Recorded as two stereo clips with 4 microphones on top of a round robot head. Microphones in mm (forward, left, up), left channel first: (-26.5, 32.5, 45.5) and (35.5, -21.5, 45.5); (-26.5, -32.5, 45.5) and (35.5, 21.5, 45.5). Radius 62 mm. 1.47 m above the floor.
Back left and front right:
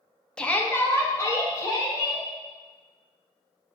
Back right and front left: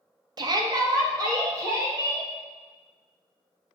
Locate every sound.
0.4 s a shout: 60° left, 0.5 m; by 2.3 s 90° left, 1.6 m